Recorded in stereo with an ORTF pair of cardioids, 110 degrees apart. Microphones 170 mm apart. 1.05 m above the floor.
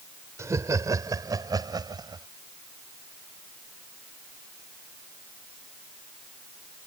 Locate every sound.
0.4 s laughter: 15° right; by 2.3 s 25° right